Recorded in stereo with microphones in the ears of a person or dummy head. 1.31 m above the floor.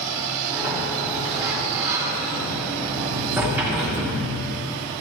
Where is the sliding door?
Centre (ahead or behind), 3 m.